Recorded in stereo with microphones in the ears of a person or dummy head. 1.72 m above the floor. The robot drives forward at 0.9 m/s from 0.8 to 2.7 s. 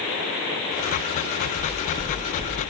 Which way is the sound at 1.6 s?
15° left (ahead or behind).